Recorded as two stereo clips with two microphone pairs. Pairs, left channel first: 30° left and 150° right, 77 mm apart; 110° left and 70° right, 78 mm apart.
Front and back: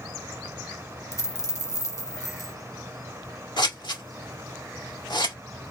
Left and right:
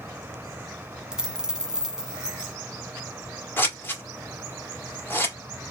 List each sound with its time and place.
1.1 s a dropped coin: 10° left, 1.1 m
3.6 s scissors: 50° left, 1.9 m